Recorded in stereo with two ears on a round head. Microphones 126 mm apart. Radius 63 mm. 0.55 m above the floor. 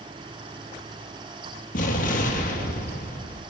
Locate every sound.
1.7 s an explosion: 65° left (ahead or behind), 7.5 m